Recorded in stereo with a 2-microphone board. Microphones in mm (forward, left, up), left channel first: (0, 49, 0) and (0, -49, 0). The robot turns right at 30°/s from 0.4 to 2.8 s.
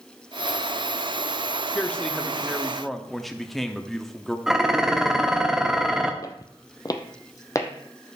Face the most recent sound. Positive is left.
turn(degrees=30)  # may be behind; listen again after turning